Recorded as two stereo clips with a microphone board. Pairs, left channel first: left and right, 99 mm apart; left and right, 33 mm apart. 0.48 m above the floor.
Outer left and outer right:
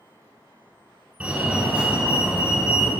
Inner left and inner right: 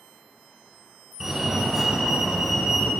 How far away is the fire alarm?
About 3.5 m.